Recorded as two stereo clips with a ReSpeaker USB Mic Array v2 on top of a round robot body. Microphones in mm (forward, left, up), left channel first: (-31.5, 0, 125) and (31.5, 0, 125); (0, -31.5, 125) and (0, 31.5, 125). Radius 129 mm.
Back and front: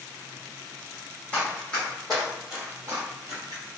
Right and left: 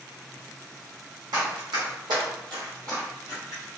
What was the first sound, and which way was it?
Running footsteps, 110° left.